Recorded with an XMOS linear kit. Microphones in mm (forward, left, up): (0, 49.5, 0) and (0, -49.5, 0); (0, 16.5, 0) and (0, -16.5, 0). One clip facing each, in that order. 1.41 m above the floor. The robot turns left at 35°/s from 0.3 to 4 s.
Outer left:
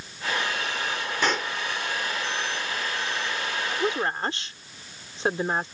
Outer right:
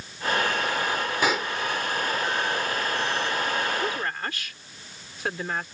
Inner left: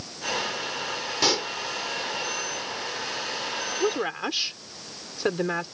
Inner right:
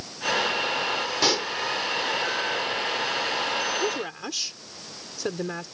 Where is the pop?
5° right (ahead or behind); by 1.5 s centre (ahead or behind).